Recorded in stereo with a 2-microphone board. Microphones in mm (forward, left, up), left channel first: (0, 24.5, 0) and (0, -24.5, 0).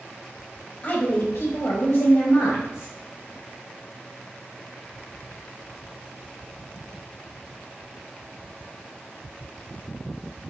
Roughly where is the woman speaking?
Left.